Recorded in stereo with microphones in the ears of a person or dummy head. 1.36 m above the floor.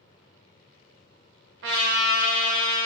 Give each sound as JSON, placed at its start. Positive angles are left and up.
{"t": 1.6, "sound": "a trumpet", "side_deg": -50, "distance_m": 0.7}